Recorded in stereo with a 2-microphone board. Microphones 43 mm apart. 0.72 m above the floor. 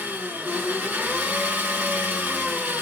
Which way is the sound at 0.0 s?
55° right (ahead or behind).